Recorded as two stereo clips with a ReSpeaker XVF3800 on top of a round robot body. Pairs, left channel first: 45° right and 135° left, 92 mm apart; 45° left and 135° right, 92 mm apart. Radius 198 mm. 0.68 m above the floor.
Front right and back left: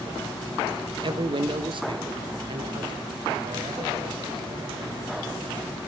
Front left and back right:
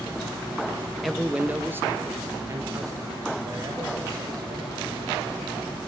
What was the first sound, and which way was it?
A man speaking, 135° left.